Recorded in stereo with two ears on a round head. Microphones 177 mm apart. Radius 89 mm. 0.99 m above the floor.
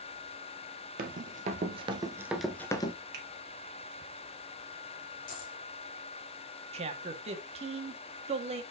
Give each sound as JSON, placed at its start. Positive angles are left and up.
{"t": 1.0, "sound": "running footsteps", "side_deg": -45, "distance_m": 1.7}
{"t": 3.1, "sound": "a finger snap", "side_deg": -50, "distance_m": 2.5}
{"t": 5.3, "sound": "a dropped coin", "side_deg": 45, "distance_m": 2.5}
{"t": 6.7, "sound": "a man speaking", "side_deg": -30, "distance_m": 1.8}